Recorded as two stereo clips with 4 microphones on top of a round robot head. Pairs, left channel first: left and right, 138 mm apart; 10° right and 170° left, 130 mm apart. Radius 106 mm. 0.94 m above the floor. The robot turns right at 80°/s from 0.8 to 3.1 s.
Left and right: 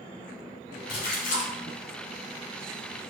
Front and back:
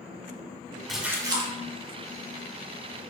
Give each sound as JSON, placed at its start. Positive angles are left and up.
{"t": 0.9, "sound": "a splash", "azimuth_deg": 75, "distance_m": 0.9}